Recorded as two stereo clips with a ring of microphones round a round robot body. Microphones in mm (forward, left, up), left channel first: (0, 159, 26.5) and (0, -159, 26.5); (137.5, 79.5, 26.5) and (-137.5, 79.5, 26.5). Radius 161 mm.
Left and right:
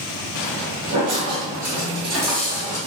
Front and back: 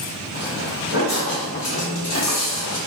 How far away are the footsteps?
About 1.8 m.